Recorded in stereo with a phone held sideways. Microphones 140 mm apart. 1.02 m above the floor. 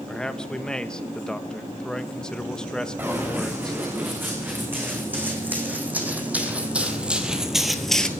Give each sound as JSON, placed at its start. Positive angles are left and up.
{"t": 0.1, "sound": "a man speaking", "side_deg": 5, "distance_m": 0.8}
{"t": 3.0, "sound": "running footsteps", "side_deg": -15, "distance_m": 5.0}